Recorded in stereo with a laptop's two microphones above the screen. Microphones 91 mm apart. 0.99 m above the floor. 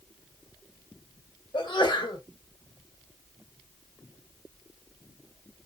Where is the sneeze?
55° left (ahead or behind), 2 m.